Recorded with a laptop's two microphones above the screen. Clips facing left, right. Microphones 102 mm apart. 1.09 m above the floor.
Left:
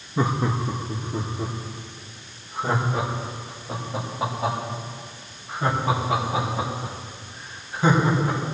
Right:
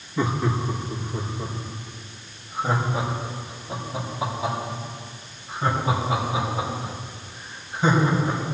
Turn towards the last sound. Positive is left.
turn(degrees=55)  # may be behind; listen again after turning